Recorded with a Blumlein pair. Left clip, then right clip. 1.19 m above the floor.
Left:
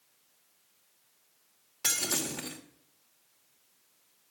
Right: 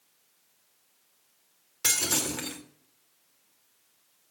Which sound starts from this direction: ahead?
Breaking glass, at 1.8 s.